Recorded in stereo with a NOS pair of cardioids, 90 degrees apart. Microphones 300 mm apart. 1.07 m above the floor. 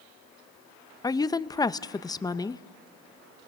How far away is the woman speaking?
About 0.6 m.